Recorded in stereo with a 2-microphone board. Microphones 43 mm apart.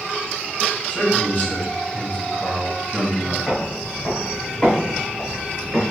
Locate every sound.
0.9 s a man speaking: 35° left (ahead or behind), 2.5 m; by 3.4 s 25° left (ahead or behind), 1.3 m
3.5 s footsteps: 10° left (ahead or behind), 2 m; by 5.8 s 35° left (ahead or behind), 4.5 m